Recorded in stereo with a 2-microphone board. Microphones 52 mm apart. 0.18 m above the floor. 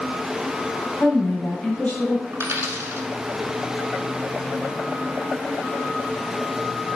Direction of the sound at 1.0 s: 35° left (ahead or behind).